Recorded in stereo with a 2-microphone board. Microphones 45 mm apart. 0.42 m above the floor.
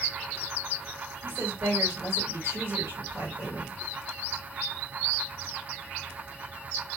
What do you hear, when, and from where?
1.2 s a woman speaking: 60° right (ahead or behind), 2.5 m